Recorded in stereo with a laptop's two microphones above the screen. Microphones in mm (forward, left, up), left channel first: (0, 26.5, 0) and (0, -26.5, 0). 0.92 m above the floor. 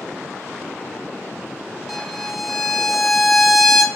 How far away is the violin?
About 0.5 m.